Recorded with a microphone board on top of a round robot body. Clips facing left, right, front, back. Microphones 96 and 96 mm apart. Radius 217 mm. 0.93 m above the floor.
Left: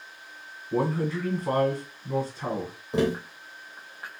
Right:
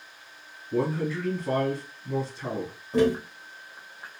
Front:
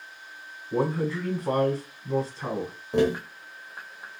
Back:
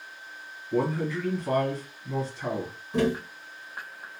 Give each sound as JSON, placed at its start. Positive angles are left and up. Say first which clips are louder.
{"t": 0.7, "sound": "a man speaking", "louder": "left 1 dB, front 1 dB", "azimuth_deg": 45, "distance_m": 1.2}
{"t": 2.9, "sound": "tapping", "louder": "right 3 dB, front 2 dB", "azimuth_deg": 25, "distance_m": 0.9}